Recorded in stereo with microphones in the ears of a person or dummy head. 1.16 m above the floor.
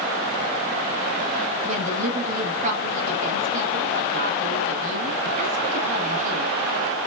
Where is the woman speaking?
40° right (ahead or behind), 1.6 m.